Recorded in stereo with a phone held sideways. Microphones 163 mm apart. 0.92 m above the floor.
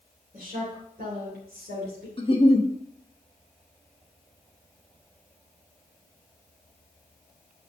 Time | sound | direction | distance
0.3 | a woman speaking | 65° right (ahead or behind) | 3 m
2.2 | a giggle | 40° left (ahead or behind) | 0.9 m